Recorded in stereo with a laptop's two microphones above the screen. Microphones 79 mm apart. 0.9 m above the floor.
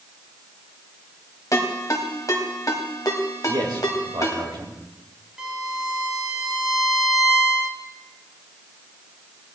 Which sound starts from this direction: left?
A ringtone, at 1.5 s.